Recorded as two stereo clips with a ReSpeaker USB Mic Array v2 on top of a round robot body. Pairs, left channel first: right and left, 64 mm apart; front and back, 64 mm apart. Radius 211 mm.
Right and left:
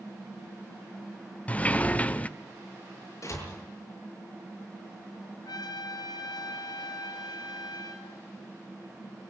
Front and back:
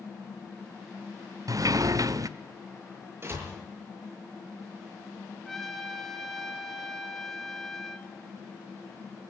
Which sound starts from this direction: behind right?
A door slam, at 3.2 s.